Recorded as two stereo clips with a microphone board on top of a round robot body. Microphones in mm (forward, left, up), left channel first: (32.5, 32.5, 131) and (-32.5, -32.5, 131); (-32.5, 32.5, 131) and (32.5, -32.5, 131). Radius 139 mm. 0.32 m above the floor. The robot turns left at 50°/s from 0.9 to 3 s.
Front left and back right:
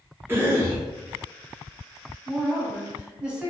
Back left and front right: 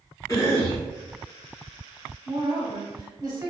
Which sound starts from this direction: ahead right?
A woman speaking, at 2.2 s.